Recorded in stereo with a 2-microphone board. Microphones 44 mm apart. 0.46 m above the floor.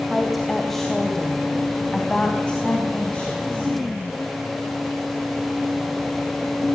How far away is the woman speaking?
About 2.5 m.